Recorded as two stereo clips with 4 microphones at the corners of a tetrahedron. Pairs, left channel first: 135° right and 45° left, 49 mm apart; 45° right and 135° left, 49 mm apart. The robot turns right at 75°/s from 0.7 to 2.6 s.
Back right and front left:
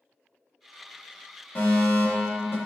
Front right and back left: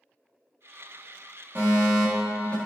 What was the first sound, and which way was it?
A fire alarm, straight behind.